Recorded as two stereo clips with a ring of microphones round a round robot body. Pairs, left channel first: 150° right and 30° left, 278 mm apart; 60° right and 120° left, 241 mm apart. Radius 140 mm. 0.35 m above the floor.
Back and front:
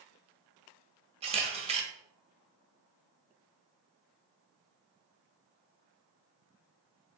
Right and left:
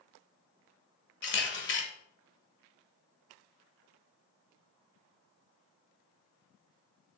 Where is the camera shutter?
35° right, 1.3 m.